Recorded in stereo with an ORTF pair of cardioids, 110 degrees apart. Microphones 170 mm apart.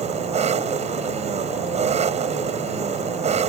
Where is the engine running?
40° right.